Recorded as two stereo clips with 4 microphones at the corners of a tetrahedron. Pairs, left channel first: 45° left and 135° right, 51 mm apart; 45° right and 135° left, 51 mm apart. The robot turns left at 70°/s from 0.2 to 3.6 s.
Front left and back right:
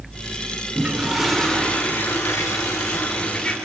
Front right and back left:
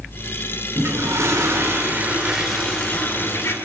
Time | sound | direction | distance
0.8 | a toilet flushing | 170° left | 4 m